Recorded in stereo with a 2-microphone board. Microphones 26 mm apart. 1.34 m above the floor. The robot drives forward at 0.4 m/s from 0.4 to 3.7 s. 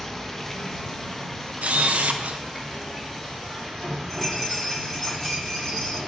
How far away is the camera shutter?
About 0.7 m.